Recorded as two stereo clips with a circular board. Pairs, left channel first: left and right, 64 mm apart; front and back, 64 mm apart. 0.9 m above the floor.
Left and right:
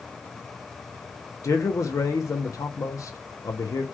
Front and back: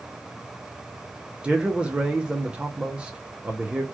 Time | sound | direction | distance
1.4 | a man speaking | 110° left | 0.5 m